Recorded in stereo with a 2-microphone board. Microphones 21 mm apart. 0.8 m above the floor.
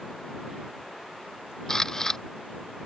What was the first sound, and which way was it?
A camera shutter, 20° left (ahead or behind).